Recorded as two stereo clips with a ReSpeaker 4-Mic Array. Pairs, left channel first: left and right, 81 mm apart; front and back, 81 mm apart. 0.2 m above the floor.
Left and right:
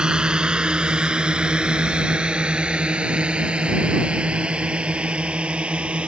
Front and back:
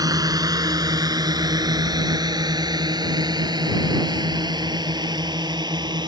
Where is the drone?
165° right.